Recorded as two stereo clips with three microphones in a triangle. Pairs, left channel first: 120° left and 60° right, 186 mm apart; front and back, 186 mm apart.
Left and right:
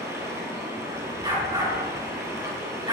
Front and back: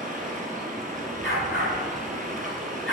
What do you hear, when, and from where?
0.0 s running water: 135° right, 2 m
1.2 s a dog barking: 5° left, 4.5 m